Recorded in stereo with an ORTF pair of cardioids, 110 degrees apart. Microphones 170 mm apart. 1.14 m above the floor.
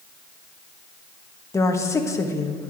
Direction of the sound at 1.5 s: 20° left.